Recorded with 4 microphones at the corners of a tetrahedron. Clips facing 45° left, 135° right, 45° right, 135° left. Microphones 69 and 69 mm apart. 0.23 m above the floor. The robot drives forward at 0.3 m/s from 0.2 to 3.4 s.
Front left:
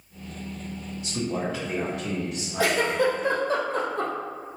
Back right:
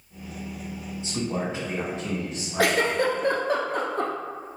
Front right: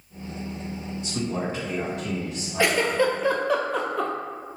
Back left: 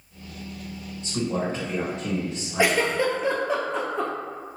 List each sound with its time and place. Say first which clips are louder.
1.0 s a man speaking: even, back left 2 dB; 175° left, 1.7 m
2.6 s a giggle: back right 1 dB, even; 150° right, 0.7 m; by 4.1 s 160° right, 0.9 m